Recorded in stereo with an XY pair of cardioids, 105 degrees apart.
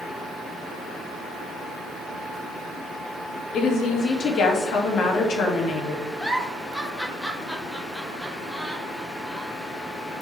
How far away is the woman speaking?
About 1.9 m.